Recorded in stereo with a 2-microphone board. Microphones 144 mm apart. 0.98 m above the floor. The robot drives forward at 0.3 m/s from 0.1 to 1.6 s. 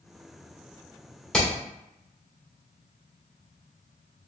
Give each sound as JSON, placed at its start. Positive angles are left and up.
{"t": 1.3, "sound": "hammering", "side_deg": 5, "distance_m": 1.7}